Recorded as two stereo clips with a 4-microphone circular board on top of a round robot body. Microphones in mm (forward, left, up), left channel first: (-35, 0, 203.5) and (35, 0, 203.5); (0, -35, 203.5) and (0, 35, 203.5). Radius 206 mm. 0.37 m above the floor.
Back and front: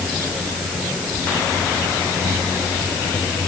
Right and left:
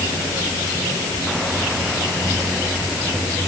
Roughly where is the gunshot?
I don't hear a gunshot.